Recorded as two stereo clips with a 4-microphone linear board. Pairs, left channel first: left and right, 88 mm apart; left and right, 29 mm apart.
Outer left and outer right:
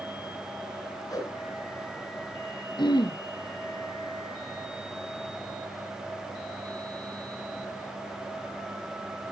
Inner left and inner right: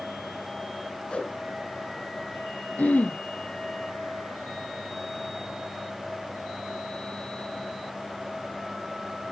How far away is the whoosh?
About 2.5 m.